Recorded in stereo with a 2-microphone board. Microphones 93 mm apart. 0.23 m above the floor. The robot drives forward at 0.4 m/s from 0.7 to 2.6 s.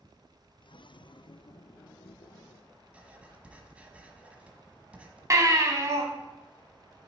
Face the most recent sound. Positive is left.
turn(degrees=-35)  # may be behind; listen again after turning